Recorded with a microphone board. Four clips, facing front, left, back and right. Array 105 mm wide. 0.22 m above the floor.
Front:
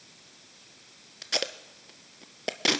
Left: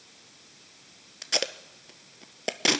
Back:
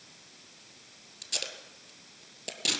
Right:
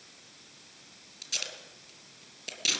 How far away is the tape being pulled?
About 0.7 m.